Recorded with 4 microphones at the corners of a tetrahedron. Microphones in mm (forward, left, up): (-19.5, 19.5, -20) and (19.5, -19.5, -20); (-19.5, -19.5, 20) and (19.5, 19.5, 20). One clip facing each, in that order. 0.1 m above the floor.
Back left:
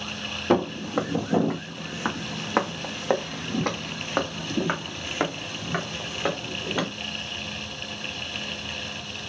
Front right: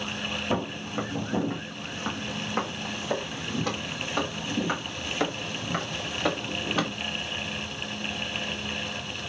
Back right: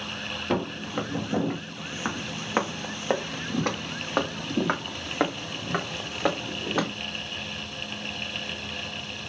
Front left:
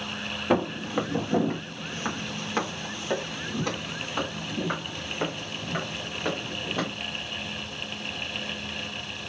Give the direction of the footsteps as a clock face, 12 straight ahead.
8 o'clock.